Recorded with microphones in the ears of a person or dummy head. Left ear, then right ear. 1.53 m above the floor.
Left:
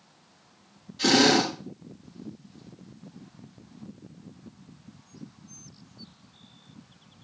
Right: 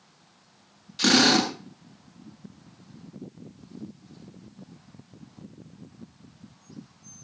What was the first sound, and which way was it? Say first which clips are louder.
A drill: right 1 dB; 70° right (ahead or behind).